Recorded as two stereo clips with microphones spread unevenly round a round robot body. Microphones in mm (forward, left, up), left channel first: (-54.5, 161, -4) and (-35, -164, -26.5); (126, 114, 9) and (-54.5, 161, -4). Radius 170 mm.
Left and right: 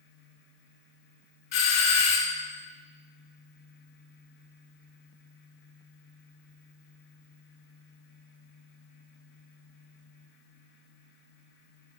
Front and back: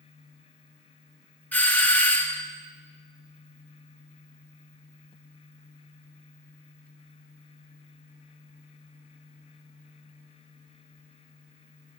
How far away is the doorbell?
About 1.4 m.